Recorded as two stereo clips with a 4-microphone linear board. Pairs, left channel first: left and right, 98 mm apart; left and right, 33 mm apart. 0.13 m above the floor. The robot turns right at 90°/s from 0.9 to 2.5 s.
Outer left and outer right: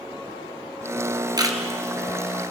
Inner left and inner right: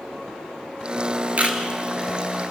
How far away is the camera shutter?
About 2 m.